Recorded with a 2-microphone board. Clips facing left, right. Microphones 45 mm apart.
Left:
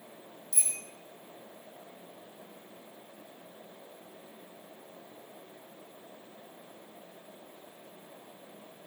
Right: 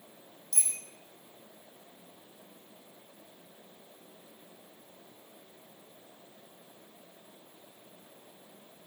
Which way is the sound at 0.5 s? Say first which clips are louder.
Even; 70° right (ahead or behind).